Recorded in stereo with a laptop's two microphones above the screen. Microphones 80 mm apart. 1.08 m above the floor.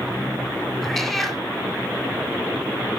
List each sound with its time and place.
0.8 s a cat meowing: 5° left (ahead or behind), 1.5 m